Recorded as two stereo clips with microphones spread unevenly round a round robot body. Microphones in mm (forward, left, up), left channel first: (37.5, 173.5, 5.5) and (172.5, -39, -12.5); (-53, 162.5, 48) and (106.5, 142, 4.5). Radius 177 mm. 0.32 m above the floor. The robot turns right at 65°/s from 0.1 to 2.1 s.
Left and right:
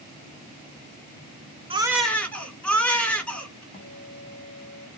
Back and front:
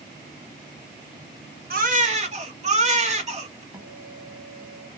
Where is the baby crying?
10° left, 1.7 m; by 3.6 s 35° left, 1.7 m.